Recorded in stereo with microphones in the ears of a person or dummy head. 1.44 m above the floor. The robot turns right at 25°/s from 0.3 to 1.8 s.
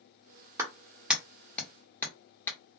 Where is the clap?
15° right (ahead or behind), 0.9 m; by 2.6 s 15° left (ahead or behind), 0.9 m.